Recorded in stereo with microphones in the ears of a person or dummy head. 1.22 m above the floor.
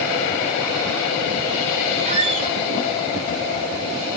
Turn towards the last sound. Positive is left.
turn(degrees=-30)  # may be behind; listen again after turning